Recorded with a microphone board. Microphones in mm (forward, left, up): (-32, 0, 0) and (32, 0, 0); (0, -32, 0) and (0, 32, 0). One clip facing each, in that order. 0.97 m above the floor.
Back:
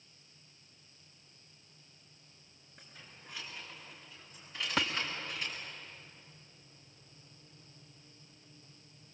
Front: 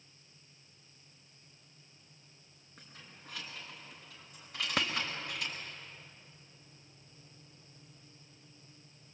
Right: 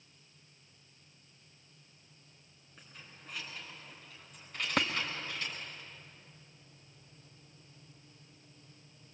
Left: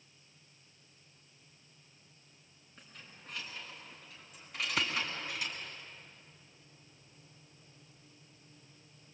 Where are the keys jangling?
5° right, 7 m; by 5.6 s 15° left, 5.5 m.